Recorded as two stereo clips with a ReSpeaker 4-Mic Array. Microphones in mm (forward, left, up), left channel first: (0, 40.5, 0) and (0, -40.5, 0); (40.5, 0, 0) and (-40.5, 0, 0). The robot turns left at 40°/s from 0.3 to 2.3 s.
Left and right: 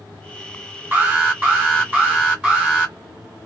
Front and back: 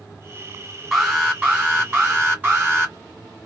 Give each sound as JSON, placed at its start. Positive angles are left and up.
{"t": 0.9, "sound": "an alarm", "azimuth_deg": -100, "distance_m": 2.0}